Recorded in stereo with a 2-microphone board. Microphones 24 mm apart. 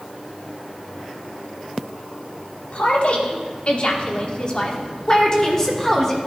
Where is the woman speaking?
55° left (ahead or behind), 1.8 m; by 6.2 s 20° left (ahead or behind), 2 m.